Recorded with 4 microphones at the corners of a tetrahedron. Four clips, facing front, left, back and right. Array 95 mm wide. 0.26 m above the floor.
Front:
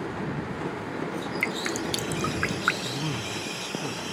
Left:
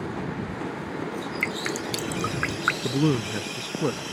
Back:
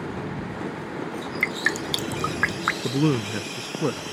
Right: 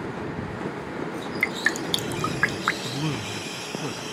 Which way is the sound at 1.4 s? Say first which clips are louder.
Right 5 dB, back 6 dB; 140° right.